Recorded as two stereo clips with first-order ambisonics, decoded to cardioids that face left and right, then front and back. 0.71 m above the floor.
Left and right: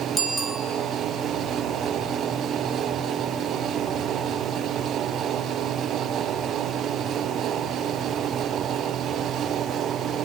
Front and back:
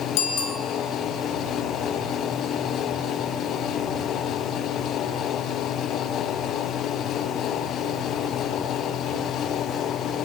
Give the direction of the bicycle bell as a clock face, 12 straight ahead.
12 o'clock.